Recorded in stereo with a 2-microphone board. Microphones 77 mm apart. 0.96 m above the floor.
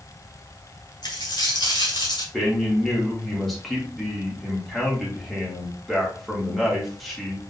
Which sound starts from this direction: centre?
A man speaking, at 2.3 s.